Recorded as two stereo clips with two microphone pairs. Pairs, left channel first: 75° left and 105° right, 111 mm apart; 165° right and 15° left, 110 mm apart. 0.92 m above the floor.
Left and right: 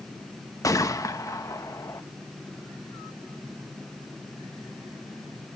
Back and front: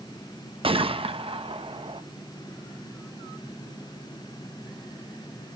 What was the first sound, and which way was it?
A gunshot, 20° left.